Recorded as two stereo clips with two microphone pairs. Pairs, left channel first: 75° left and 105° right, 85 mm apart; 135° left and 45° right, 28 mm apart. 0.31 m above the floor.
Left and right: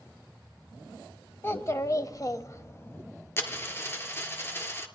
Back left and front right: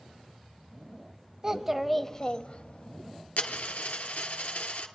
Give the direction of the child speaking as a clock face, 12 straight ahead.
12 o'clock.